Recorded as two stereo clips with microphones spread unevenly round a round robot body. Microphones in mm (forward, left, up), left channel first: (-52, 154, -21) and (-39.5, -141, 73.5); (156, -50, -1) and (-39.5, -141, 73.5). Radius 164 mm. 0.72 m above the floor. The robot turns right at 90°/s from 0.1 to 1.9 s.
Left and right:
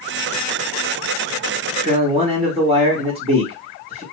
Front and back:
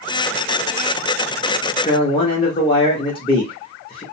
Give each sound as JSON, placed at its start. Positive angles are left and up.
{"t": 1.8, "sound": "a man speaking", "azimuth_deg": -10, "distance_m": 0.9}